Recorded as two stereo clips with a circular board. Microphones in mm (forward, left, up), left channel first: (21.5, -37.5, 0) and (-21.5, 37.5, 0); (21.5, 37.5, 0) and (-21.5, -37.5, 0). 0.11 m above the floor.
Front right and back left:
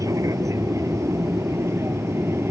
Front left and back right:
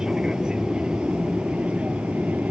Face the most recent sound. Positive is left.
turn(degrees=170)